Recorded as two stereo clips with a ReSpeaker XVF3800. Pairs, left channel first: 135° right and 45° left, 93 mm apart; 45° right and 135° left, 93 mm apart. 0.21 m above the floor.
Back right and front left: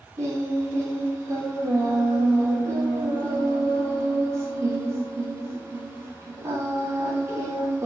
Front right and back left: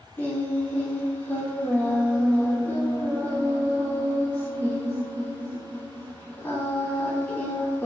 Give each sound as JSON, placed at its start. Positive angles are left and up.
{"t": 0.2, "sound": "singing", "azimuth_deg": 10, "distance_m": 0.6}